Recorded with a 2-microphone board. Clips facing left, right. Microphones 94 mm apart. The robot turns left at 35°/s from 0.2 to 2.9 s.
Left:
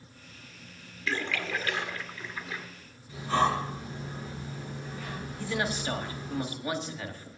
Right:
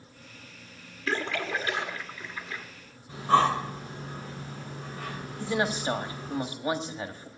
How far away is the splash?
About 1.5 m.